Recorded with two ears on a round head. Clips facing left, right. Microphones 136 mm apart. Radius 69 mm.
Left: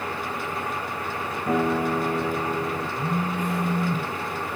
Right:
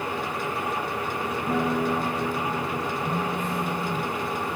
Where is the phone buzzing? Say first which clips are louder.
Left 1 dB; 65° left (ahead or behind), 2 m.